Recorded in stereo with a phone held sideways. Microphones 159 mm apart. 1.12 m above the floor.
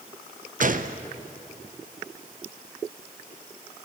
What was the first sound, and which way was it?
A gunshot, 55° right (ahead or behind).